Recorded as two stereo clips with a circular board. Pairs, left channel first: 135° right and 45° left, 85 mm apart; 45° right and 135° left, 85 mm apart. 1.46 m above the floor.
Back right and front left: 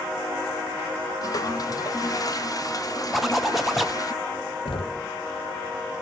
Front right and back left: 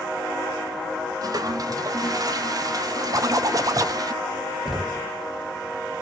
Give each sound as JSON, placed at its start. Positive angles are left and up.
{"t": 1.2, "sound": "a toilet flushing", "azimuth_deg": 180, "distance_m": 0.6}
{"t": 3.1, "sound": "a zipper", "azimuth_deg": 135, "distance_m": 0.5}
{"t": 4.7, "sound": "knocking", "azimuth_deg": -135, "distance_m": 0.8}